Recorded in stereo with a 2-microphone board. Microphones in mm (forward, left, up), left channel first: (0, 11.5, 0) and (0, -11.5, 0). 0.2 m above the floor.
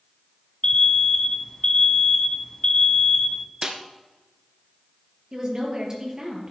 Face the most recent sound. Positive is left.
turn(degrees=-35)  # may be behind; listen again after turning